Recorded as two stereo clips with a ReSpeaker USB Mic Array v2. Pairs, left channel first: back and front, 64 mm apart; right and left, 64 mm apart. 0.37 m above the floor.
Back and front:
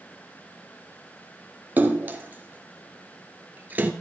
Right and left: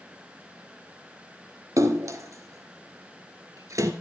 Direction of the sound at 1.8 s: 60° left.